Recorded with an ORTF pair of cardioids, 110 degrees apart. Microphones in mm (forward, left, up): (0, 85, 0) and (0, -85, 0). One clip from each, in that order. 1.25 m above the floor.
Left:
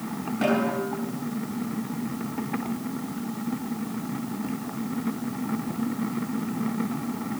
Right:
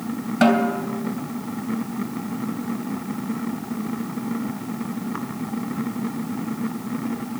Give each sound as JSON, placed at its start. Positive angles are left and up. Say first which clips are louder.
{"t": 0.4, "sound": "a snare drum", "louder": "right 6 dB", "azimuth_deg": -65, "distance_m": 3.0}